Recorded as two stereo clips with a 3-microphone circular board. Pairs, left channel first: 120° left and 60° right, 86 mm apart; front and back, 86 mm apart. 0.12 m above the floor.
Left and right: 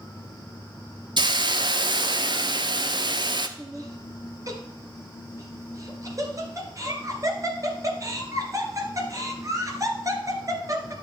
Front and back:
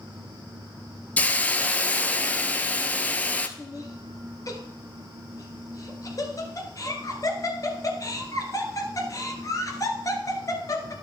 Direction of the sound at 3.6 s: 30° right.